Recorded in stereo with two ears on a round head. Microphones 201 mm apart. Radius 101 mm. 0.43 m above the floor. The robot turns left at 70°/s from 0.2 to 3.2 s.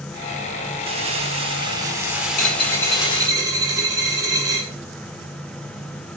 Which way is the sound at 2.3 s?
45° left.